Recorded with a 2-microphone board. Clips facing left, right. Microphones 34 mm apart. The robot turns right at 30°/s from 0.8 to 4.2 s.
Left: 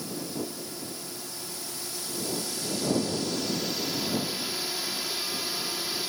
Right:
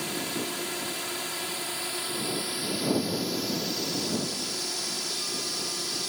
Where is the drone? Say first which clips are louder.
Right 3 dB; 90° right; by 6.1 s 15° left.